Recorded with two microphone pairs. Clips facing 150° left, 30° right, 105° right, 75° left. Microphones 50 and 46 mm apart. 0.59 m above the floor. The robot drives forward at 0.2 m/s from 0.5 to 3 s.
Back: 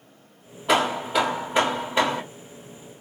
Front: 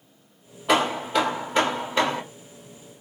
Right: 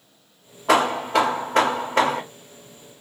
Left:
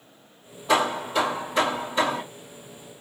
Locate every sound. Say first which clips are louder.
0.7 s hammering: even, right 4 dB; 115° right, 1.0 m; by 2.2 s 130° right, 1.1 m